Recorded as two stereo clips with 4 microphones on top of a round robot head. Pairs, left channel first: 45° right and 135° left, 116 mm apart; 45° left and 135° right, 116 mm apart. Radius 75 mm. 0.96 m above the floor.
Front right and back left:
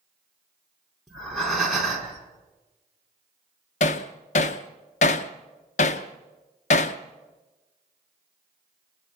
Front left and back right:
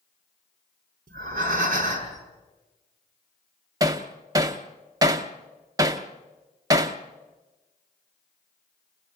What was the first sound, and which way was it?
Breathing, 135° right.